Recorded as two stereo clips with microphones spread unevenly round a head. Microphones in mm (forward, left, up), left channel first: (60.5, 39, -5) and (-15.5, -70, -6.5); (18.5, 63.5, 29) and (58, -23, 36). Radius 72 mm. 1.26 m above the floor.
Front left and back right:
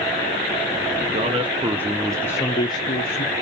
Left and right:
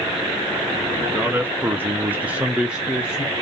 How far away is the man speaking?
About 0.6 m.